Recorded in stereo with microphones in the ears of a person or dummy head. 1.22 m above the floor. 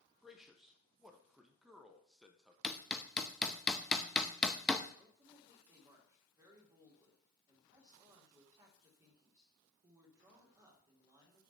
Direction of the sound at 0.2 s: Centre (ahead or behind).